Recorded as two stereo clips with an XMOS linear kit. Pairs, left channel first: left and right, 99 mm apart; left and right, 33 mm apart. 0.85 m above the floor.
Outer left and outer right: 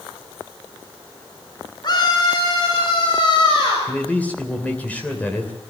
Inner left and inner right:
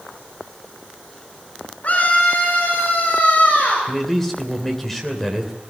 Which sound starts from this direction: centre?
A man speaking, at 3.9 s.